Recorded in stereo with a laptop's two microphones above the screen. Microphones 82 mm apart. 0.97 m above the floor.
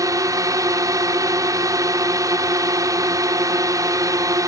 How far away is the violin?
I don't hear a violin.